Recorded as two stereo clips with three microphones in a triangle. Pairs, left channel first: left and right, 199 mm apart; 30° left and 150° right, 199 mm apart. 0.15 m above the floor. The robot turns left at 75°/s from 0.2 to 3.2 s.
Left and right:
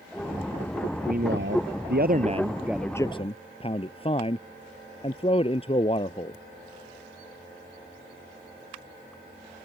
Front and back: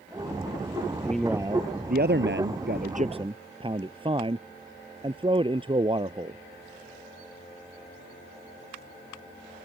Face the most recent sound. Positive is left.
turn(degrees=150)